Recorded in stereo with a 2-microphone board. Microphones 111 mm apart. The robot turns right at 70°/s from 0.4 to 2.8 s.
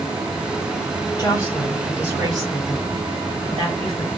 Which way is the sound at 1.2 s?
140° left.